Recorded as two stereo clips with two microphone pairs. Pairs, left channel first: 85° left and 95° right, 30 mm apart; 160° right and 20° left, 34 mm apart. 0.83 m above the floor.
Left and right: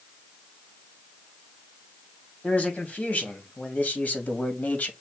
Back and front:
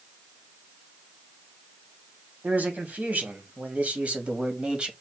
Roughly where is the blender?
I don't hear a blender.